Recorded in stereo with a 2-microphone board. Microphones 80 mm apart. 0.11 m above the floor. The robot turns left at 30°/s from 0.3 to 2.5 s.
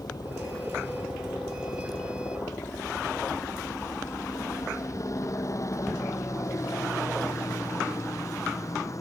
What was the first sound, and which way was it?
A helicopter, 60° left (ahead or behind).